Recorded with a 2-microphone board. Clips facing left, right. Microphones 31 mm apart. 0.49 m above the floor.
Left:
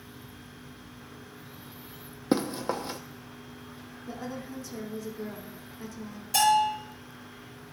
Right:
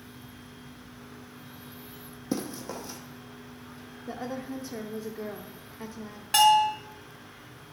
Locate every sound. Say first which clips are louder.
2.3 s running footsteps: left 6 dB; 45° left (ahead or behind), 0.9 m
4.1 s a woman speaking: right 3 dB; 30° right (ahead or behind), 0.8 m
6.3 s a bell: right 3 dB; 60° right (ahead or behind), 3 m